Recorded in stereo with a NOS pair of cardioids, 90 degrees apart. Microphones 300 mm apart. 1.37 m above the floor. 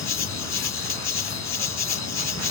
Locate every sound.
0.0 s an insect: 60° left